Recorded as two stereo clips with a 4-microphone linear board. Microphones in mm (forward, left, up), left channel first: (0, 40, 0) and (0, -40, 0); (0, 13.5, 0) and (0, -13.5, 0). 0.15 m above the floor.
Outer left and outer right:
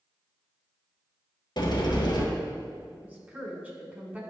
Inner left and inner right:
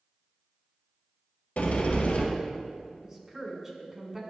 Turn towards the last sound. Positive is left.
turn(degrees=-20)  # may be behind; listen again after turning